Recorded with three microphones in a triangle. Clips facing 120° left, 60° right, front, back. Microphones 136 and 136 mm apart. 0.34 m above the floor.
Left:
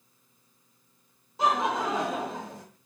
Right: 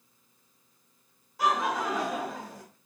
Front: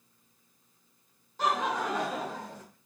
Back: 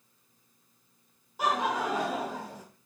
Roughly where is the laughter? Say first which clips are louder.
Left 1 dB, back 1 dB; behind left.